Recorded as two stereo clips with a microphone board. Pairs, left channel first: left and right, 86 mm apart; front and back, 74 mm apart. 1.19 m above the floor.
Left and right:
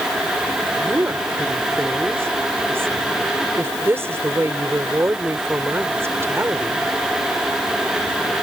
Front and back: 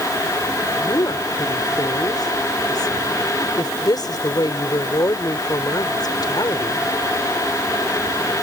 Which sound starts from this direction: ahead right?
A woman speaking, at 0.8 s.